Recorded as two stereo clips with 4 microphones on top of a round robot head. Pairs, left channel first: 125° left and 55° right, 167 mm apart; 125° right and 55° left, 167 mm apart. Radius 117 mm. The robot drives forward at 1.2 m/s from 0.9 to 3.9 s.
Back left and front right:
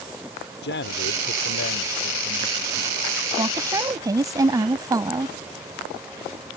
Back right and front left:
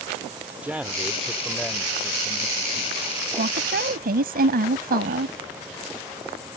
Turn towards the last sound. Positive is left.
turn(degrees=15)